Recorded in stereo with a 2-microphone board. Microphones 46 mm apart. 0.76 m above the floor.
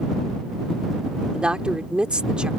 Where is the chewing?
I don't hear chewing.